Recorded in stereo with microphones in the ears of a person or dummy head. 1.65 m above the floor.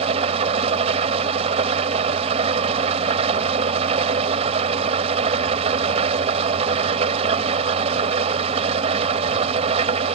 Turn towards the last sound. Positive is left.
turn(degrees=-35)  # may be behind; listen again after turning